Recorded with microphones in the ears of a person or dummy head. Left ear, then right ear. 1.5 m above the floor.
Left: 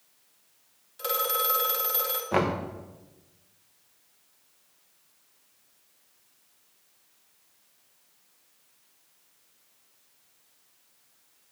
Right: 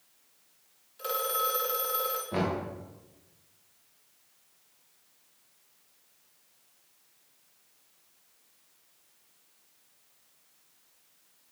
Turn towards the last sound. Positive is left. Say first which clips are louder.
# left 7 dB
turn(degrees=40)  # may be behind; listen again after turning